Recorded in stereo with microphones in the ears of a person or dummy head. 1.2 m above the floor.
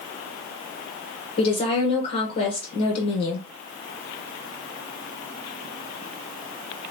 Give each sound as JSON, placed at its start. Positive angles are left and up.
{"t": 1.4, "sound": "a woman speaking", "side_deg": 35, "distance_m": 0.9}